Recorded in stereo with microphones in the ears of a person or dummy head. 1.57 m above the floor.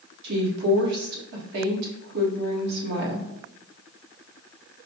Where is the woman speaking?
55° right (ahead or behind), 1.5 m.